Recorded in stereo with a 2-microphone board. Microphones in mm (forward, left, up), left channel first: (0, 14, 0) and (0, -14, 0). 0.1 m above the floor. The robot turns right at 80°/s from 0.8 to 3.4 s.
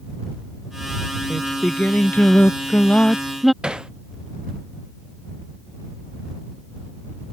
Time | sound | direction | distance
1.3 | singing | 15° left | ?
3.6 | hammering | 35° right (ahead or behind) | ?